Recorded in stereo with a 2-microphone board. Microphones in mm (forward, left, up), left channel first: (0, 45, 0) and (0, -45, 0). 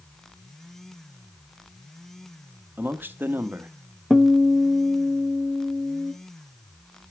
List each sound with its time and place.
2.8 s a man speaking: 20° right (ahead or behind), 1.2 m
4.1 s a guitar: centre (ahead or behind), 1.1 m